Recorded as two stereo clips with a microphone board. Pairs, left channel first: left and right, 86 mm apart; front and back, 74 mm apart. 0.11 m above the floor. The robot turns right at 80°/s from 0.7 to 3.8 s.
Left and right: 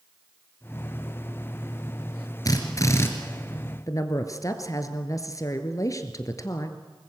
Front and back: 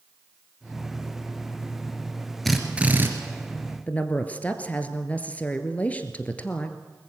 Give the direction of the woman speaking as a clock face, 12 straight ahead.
10 o'clock.